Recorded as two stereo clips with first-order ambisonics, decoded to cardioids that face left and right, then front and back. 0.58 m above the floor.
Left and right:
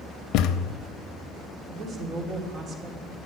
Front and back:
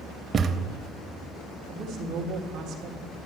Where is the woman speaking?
145° right, 1.8 m.